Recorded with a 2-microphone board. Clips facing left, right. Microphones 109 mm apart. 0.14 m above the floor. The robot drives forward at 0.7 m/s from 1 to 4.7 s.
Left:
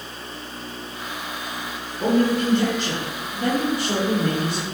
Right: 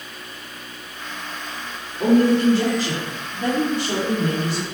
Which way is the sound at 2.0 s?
5° right (ahead or behind).